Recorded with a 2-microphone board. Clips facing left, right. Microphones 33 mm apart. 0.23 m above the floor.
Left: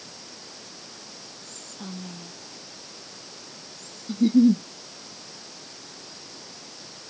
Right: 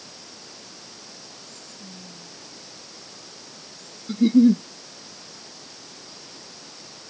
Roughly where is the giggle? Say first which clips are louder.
Right 2 dB; right.